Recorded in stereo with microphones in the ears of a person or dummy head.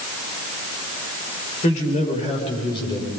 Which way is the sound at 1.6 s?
40° left (ahead or behind).